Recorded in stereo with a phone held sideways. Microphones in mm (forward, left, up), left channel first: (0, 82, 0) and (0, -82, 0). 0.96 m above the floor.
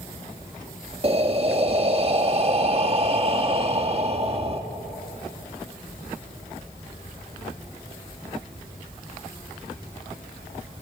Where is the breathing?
40° right (ahead or behind), 1.4 m.